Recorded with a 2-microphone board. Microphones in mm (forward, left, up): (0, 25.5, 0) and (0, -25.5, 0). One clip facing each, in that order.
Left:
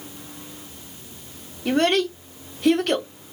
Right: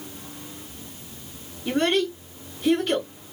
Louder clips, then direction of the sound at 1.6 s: Left 2 dB; 65° left (ahead or behind).